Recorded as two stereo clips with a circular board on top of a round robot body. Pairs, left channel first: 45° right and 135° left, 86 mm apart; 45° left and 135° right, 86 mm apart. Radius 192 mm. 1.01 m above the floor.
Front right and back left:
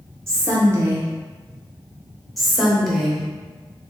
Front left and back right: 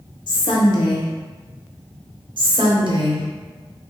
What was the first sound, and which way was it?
A woman speaking, 75° left.